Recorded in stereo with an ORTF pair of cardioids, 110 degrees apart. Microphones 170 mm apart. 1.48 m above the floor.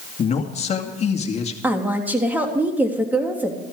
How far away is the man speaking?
About 2.5 m.